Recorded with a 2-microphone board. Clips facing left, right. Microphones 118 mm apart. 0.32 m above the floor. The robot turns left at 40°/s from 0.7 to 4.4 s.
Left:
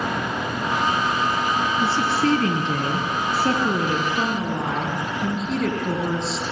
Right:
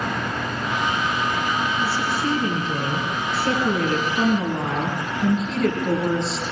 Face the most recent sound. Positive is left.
turn(degrees=0)